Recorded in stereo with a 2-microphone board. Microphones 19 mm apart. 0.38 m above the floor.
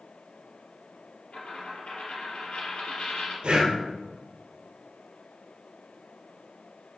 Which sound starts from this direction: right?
Breathing, at 3.4 s.